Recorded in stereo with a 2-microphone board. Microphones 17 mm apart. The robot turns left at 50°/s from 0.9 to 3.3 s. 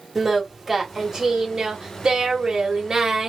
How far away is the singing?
About 1.6 m.